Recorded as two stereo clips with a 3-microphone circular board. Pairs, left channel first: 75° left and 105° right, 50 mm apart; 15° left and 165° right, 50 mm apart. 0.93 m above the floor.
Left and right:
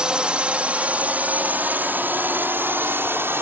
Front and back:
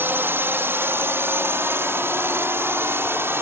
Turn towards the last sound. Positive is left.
turn(degrees=-135)